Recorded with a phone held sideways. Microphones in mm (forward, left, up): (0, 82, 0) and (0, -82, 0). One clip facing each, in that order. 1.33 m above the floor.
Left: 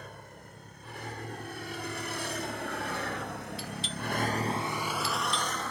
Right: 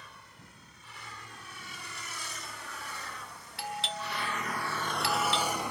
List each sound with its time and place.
0.0 s a vehicle: 55° left (ahead or behind); by 5.7 s 15° right (ahead or behind)
3.6 s a doorbell: 75° right (ahead or behind)